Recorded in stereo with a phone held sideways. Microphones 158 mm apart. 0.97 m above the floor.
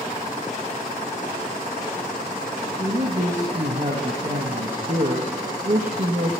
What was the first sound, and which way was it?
A man speaking, 50° right (ahead or behind).